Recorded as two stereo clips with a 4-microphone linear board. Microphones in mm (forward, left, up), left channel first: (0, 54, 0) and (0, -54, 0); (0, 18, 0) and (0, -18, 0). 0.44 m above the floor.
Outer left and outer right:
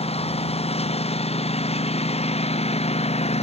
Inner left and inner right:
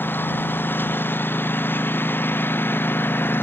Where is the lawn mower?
70° left (ahead or behind); by 3.4 s 75° left (ahead or behind).